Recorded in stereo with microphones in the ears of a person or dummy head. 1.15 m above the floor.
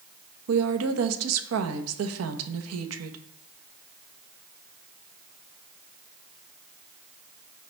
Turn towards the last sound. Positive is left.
turn(degrees=-80)